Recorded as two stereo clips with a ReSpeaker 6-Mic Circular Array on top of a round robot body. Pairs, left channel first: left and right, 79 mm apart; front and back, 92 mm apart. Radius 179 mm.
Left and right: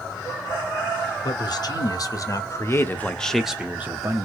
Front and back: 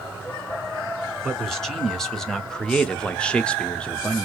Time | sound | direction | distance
1.2 | a man speaking | 85° left | 1.5 m